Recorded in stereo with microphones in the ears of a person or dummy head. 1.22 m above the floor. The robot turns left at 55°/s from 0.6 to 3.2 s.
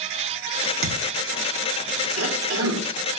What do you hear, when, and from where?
0.8 s a thud: 60° right (ahead or behind), 1.0 m; by 1.0 s 55° right (ahead or behind), 1.0 m
2.2 s a cough: 85° right, 2.5 m; by 2.9 s 120° right, 2.5 m